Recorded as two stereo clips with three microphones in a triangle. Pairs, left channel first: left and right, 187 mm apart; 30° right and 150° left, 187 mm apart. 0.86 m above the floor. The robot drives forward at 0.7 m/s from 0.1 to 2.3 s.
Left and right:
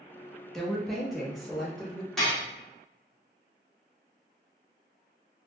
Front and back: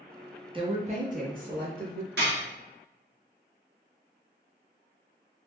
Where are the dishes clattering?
175° left, 1.3 m.